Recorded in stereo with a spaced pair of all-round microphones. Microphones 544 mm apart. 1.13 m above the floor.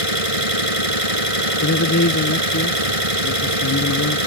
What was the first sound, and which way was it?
An engine running, 80° right.